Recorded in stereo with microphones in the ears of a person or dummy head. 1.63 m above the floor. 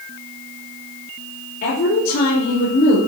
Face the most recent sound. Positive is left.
turn(degrees=45)  # may be behind; listen again after turning